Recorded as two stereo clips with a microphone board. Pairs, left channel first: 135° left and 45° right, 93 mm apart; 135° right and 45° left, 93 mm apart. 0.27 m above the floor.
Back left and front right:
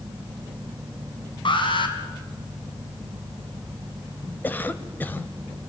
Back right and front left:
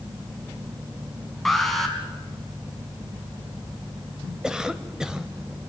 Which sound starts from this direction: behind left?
An alarm, at 1.4 s.